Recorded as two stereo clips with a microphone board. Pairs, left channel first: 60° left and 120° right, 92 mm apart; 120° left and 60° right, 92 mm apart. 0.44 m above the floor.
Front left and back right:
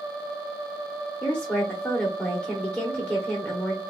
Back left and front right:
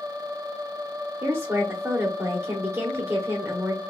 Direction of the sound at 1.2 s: 15° right.